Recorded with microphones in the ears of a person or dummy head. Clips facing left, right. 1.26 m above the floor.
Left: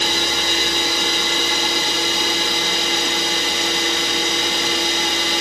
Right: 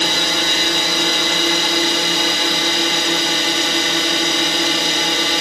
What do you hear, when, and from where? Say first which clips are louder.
0.0 s a drone: right 2 dB; 55° right (ahead or behind)